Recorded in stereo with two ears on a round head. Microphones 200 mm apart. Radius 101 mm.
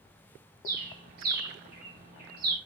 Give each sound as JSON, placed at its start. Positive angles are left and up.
{"t": 0.7, "sound": "a bird", "side_deg": -45, "distance_m": 0.9}